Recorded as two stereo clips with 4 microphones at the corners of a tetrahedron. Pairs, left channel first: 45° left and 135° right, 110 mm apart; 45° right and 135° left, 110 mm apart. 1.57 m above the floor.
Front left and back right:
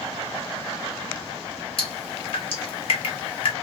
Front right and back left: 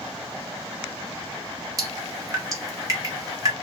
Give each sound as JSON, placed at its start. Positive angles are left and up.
{"t": 1.8, "sound": "dripping", "azimuth_deg": 80, "distance_m": 1.3}